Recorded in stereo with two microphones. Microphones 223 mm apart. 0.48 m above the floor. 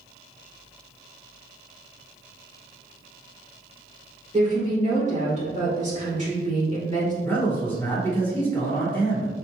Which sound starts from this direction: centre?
A man speaking, at 7.2 s.